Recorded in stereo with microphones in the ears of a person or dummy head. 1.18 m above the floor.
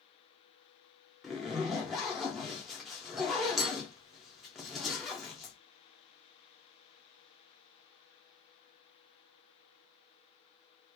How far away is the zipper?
About 0.7 m.